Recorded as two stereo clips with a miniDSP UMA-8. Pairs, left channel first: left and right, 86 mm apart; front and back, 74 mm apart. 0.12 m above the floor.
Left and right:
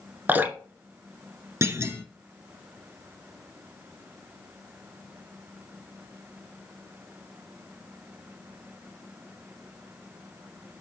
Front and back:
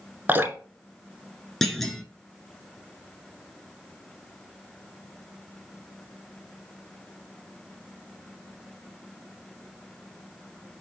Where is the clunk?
80° right, 1.6 m.